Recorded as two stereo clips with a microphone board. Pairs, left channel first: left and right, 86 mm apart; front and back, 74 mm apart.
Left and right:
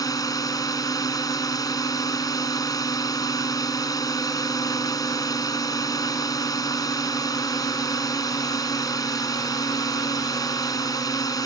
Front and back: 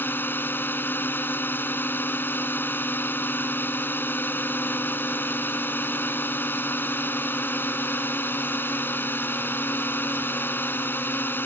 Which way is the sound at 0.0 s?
55° left.